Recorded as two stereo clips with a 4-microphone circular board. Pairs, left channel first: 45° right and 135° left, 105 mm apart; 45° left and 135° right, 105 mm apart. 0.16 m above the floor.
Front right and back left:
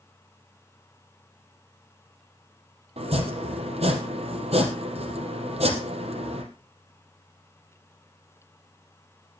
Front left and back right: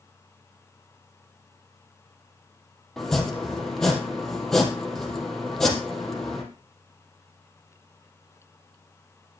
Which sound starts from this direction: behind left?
Chopping, at 3.0 s.